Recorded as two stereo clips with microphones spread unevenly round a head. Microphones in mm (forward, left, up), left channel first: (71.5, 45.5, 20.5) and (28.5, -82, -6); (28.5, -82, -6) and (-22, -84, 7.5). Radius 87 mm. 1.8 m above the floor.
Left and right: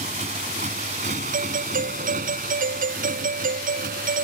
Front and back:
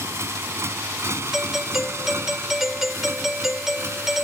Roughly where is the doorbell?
Right.